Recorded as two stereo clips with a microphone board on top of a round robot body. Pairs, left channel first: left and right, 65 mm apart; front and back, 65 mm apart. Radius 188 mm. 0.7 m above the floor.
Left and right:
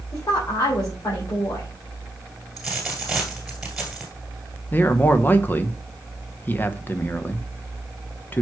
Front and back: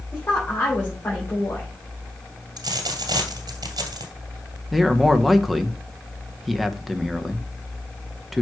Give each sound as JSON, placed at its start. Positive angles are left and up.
{"t": 0.1, "sound": "a woman speaking", "azimuth_deg": 55, "distance_m": 3.0}
{"t": 2.6, "sound": "a dropped coin", "azimuth_deg": -170, "distance_m": 1.8}
{"t": 4.7, "sound": "a man speaking", "azimuth_deg": 90, "distance_m": 1.2}